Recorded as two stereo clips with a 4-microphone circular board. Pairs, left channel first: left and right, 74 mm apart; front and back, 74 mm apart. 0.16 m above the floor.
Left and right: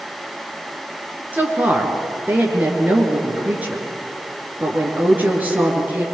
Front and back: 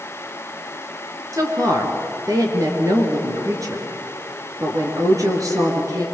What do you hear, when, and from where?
1.3 s a woman speaking: 155° right, 3 m